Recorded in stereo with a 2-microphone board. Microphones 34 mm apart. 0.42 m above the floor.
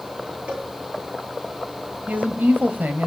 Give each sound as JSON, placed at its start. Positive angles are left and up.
{"t": 0.5, "sound": "a cowbell", "side_deg": -45, "distance_m": 9.5}
{"t": 2.1, "sound": "a woman speaking", "side_deg": -55, "distance_m": 2.0}